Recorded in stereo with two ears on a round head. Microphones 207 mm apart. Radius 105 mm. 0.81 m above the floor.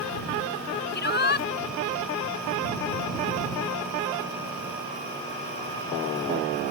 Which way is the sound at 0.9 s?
50° left (ahead or behind).